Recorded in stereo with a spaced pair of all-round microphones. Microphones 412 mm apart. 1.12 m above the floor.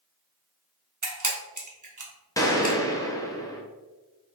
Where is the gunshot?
10° left (ahead or behind), 0.6 m.